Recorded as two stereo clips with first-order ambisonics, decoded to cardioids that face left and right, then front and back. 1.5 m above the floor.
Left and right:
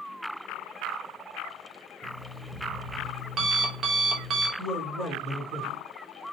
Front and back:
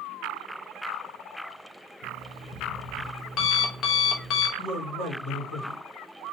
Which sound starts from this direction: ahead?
A man speaking, at 4.6 s.